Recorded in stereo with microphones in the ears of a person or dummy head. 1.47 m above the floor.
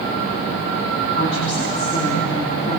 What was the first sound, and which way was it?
A woman speaking, 45° left (ahead or behind).